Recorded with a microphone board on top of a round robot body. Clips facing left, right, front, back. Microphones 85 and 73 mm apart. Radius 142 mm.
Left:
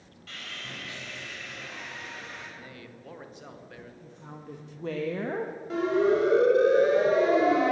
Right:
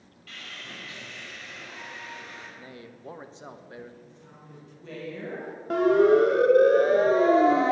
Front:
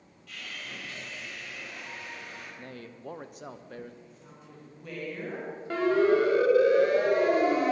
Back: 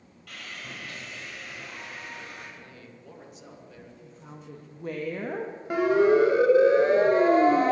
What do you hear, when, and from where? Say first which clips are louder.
0.3 s sawing: left 1 dB, back 1 dB; 150° left, 6.5 m
2.6 s a man speaking: right 2 dB, front 4 dB; 30° right, 1.2 m
4.0 s a woman speaking: left 6 dB, back 5 dB; 125° left, 1.3 m
5.7 s a siren: right 5 dB, back 3 dB; 105° right, 2.5 m; by 7.7 s 145° right, 1.8 m